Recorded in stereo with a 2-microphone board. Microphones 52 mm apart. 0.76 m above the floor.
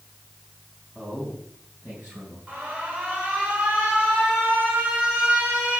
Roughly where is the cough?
No cough in this recording.